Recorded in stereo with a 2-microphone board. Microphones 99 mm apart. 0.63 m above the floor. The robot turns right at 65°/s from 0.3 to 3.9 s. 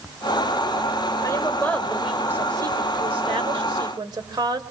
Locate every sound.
1.2 s a woman speaking: 135° left, 2.0 m; by 4.6 s 50° right, 2.0 m